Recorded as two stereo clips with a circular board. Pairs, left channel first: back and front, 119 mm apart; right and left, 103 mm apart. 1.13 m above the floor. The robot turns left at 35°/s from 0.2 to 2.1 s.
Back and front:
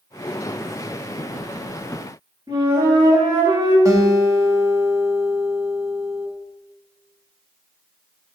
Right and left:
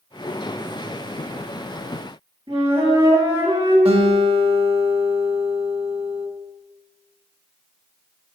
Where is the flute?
55° left, 5.5 m.